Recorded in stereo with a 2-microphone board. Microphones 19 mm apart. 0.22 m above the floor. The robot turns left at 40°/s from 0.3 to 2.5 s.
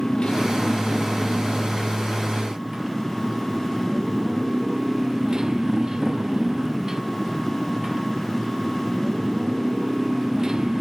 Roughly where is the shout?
No shout in this recording.